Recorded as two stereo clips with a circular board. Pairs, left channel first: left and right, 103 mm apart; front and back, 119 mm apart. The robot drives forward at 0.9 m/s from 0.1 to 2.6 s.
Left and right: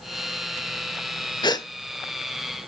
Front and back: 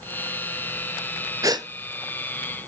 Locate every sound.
1.4 s a gasp: 125° left, 0.8 m; by 1.7 s 135° left, 0.9 m